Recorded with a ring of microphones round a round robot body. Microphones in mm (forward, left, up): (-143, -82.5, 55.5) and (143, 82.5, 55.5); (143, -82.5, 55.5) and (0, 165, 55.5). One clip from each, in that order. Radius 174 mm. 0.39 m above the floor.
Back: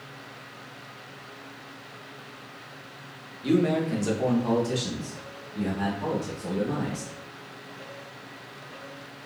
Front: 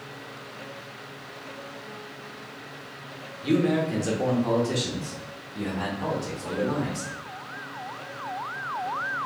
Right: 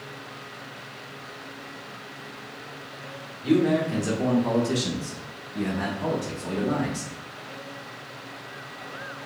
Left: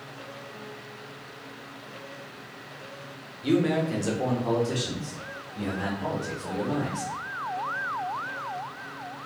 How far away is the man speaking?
About 1.0 m.